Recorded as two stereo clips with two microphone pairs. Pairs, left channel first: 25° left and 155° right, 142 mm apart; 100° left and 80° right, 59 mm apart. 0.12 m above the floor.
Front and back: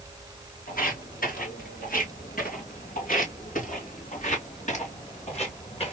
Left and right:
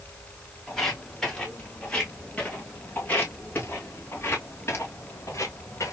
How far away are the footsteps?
About 3.5 m.